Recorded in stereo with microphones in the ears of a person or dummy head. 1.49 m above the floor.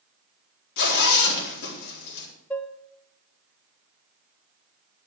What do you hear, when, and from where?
0.8 s a zipper: 65° left (ahead or behind), 4 m
2.5 s dishes clattering: 10° left (ahead or behind), 0.8 m